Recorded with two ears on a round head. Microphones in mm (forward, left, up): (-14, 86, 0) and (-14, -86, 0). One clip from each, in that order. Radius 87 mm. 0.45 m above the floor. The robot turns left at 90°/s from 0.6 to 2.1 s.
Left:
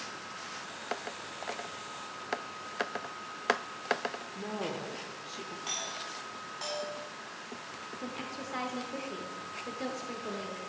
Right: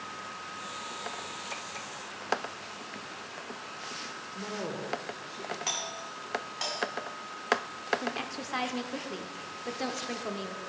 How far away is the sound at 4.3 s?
About 1.0 m.